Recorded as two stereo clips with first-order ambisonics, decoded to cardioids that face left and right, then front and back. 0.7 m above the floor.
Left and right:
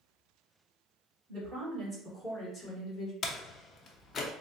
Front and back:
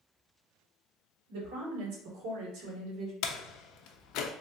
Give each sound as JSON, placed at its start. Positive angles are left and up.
{"t": 1.3, "sound": "a woman speaking", "azimuth_deg": -170, "distance_m": 2.0}
{"t": 3.2, "sound": "a door slam", "azimuth_deg": 30, "distance_m": 0.6}